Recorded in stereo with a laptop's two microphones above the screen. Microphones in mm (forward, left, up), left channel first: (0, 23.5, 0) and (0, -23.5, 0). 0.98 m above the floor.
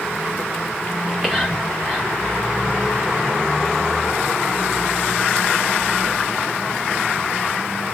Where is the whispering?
15° right (ahead or behind), 1.5 m.